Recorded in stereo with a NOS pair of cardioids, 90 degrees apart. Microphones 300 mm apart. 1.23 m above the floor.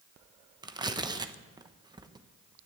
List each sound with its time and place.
0.6 s tearing paper: 15° right, 1.1 m